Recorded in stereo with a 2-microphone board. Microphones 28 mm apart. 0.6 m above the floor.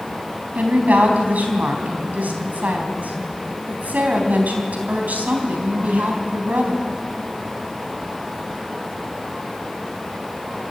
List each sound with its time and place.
0.6 s a woman speaking: 80° right, 4 m